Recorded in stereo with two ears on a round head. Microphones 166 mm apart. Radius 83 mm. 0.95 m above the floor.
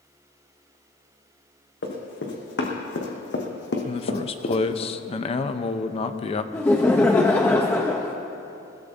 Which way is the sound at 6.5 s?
10° left (ahead or behind).